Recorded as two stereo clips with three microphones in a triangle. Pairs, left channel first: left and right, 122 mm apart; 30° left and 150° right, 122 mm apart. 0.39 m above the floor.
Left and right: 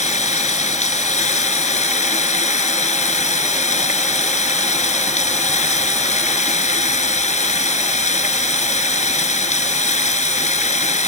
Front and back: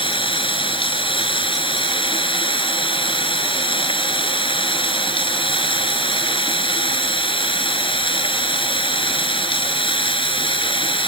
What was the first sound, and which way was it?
Running water, 75° left.